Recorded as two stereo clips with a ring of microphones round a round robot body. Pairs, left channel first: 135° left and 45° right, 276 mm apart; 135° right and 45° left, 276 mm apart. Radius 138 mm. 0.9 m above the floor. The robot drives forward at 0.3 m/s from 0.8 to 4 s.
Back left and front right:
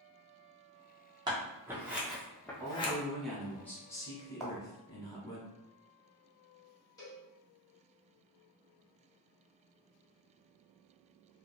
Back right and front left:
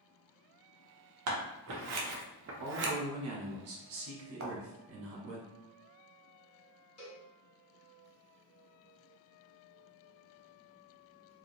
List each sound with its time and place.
1.3 s scissors: 30° left, 0.8 m; by 2.9 s 75° left, 0.5 m
2.6 s a man speaking: 35° left, 1.0 m; by 5.4 s 60° left, 0.8 m
4.4 s a thud: 45° left, 0.7 m
7.0 s a cowbell: 150° right, 1.3 m